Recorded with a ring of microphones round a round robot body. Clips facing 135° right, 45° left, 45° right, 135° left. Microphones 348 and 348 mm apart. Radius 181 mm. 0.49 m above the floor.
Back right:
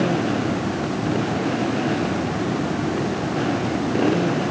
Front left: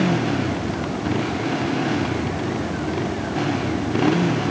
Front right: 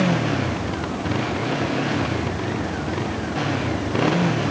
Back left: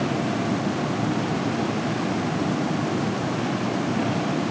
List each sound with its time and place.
0.0 s a motorcycle: 25° right